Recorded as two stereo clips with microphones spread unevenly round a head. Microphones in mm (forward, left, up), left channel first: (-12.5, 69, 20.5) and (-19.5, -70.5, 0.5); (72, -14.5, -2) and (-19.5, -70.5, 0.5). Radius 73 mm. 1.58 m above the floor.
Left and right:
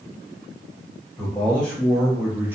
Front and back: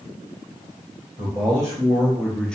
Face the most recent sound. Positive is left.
turn(degrees=-25)